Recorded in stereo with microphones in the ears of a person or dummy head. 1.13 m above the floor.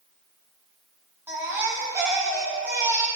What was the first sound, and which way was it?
A baby crying, 10° right (ahead or behind).